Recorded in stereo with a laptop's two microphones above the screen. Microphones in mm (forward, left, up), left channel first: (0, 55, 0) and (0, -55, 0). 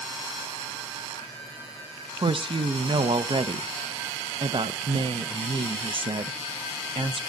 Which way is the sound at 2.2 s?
50° right (ahead or behind).